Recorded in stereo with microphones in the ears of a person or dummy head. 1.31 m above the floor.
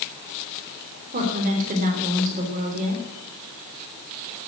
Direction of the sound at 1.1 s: 45° right (ahead or behind).